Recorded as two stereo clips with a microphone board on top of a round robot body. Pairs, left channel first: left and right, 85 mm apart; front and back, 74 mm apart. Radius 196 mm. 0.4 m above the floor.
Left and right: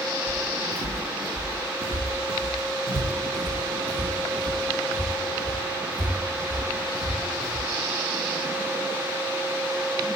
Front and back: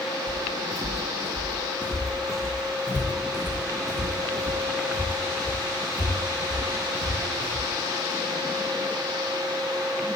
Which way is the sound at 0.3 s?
145° right.